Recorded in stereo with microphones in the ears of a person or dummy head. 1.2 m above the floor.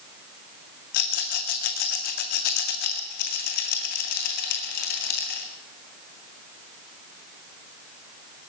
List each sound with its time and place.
0.9 s a rattle: 60° left (ahead or behind), 1.9 m